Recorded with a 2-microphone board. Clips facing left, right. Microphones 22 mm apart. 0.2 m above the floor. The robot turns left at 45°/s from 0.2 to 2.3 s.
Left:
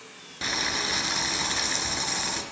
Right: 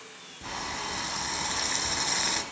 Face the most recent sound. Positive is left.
turn(degrees=-15)